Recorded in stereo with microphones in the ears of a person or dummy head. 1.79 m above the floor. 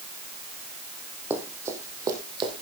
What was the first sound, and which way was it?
Running footsteps, 15° right (ahead or behind).